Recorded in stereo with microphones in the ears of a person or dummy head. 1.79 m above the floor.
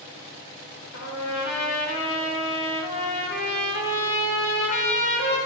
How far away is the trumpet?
About 3.5 m.